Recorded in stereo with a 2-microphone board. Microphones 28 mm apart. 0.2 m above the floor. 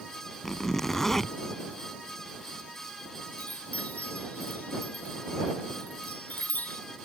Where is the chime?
65° left (ahead or behind).